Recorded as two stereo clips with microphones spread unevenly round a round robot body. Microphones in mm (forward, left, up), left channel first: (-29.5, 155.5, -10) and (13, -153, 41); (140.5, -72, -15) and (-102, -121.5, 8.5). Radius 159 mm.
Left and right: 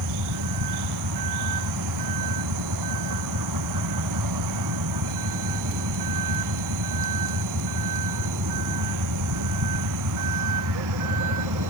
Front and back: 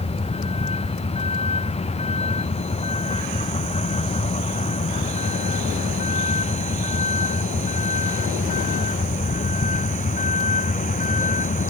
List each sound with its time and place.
0.0 s a vehicle: 55° right; by 11.7 s 50° right